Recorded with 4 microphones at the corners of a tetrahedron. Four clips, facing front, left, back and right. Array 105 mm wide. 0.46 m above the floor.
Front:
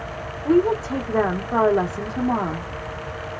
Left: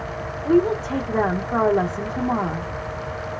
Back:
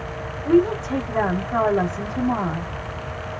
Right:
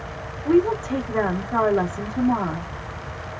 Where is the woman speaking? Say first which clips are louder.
Even, back 1 dB; 25° left, 0.9 m.